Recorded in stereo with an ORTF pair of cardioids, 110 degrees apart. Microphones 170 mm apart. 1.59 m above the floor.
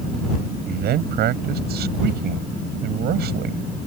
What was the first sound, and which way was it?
A man speaking, 70° right.